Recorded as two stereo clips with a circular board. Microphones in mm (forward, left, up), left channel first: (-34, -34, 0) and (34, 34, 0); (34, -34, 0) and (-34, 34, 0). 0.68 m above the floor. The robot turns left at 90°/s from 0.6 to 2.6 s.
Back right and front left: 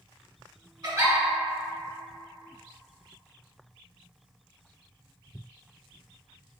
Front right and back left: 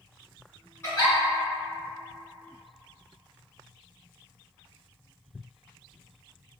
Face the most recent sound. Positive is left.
turn(degrees=-145)